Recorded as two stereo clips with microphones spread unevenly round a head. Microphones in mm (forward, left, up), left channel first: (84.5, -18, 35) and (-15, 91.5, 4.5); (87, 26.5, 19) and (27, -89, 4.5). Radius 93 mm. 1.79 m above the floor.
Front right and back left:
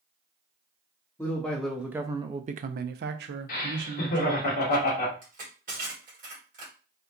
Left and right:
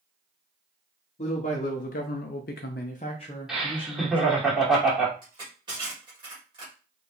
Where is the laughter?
30° right, 1.6 m.